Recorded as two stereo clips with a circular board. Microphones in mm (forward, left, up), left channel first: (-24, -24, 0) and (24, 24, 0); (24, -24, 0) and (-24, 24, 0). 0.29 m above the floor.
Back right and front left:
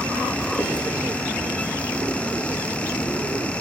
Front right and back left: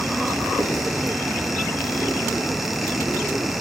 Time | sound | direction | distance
0.6 | writing | 170° left | 4 m